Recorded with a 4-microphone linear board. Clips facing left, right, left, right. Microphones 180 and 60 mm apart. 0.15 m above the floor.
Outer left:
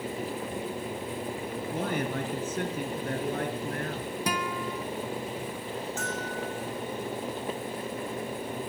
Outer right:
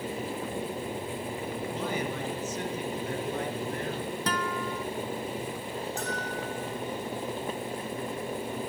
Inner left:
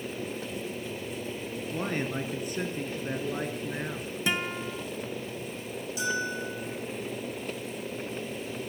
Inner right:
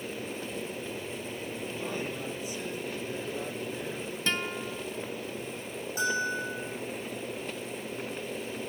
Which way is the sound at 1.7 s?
55° left (ahead or behind).